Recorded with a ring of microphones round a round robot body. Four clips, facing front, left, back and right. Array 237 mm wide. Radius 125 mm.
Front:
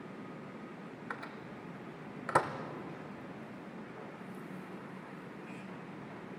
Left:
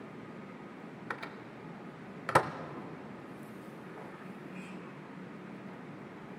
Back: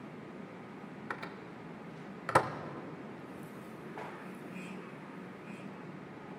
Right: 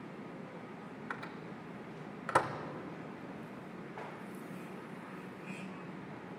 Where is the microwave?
120° left, 0.7 m.